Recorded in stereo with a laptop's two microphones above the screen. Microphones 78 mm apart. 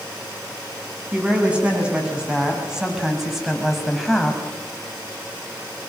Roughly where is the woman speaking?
Centre.